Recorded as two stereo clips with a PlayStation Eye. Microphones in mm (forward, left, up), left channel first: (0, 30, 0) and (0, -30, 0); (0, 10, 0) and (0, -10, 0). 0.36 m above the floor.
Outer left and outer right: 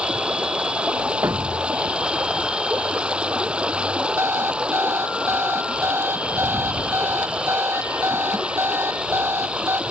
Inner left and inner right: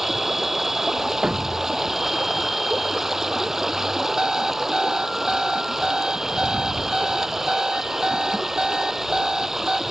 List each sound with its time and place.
0.0 s running water: 15° right (ahead or behind)
1.2 s a thud: 55° right (ahead or behind)
4.2 s an alarm clock: 45° right (ahead or behind)